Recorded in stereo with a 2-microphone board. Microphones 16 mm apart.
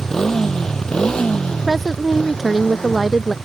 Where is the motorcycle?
25° left (ahead or behind); by 3.4 s 75° left (ahead or behind).